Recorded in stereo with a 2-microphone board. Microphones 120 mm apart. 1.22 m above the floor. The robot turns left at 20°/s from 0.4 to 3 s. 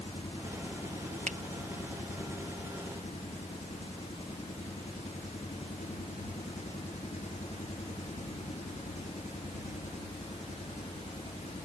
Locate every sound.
0.0 s an engine running: 125° left; by 11.7 s 75° left
1.3 s a finger snap: 80° right